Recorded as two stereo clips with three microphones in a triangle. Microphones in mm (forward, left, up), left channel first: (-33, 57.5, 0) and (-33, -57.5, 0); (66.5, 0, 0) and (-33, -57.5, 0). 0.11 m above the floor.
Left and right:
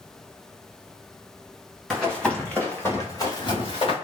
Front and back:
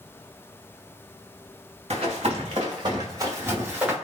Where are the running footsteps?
Straight behind, 1.5 m; by 3.9 s 130° left, 1.1 m.